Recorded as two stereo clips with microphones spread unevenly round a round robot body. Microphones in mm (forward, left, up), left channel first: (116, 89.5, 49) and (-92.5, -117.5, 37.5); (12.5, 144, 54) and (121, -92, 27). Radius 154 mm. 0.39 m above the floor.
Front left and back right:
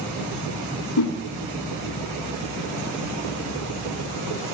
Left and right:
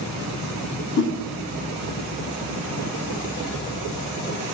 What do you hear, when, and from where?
1.0 s a whoosh: 85° left, 2.5 m